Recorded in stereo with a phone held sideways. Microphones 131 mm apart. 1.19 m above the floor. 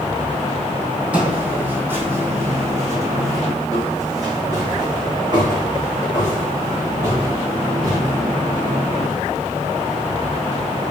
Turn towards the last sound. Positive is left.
turn(degrees=-40)  # may be behind; listen again after turning